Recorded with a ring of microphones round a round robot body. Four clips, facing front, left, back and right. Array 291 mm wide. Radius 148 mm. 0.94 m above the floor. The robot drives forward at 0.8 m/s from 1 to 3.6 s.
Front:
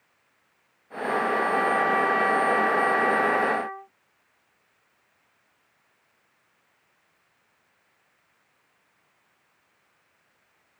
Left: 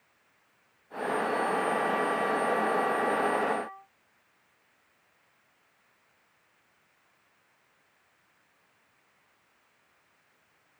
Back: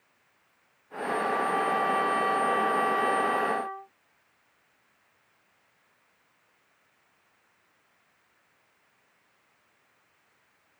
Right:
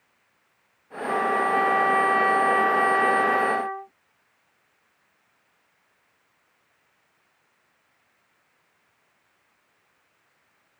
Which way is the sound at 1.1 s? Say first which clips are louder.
Right 6 dB, front 3 dB; 70° right.